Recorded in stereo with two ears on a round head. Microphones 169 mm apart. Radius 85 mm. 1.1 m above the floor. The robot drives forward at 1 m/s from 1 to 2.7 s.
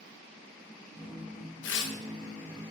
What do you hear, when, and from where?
1.6 s tearing paper: 70° left (ahead or behind), 1.2 m; by 1.9 s 65° left (ahead or behind), 1.3 m